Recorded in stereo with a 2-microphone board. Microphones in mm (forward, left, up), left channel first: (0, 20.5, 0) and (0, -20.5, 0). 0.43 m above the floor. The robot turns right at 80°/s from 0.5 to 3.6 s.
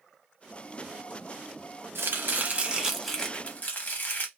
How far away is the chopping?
About 0.7 m.